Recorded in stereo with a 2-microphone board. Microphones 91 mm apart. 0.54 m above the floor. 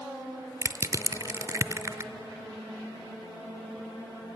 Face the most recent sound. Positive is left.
turn(degrees=-35)  # may be behind; listen again after turning